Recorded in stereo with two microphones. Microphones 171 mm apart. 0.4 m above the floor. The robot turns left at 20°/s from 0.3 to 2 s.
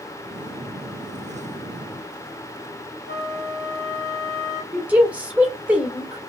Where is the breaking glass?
I don't hear breaking glass.